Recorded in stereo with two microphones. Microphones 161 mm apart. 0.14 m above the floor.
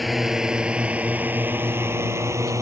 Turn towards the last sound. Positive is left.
turn(degrees=-20)  # may be behind; listen again after turning